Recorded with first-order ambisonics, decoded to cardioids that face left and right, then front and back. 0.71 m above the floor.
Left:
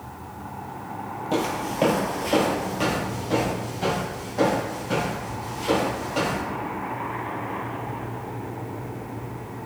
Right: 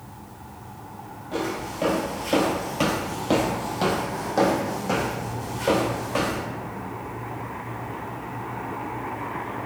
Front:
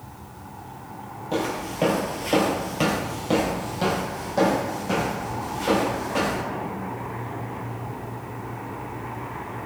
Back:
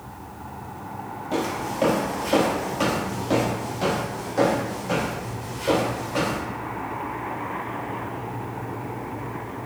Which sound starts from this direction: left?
Footsteps, at 1.3 s.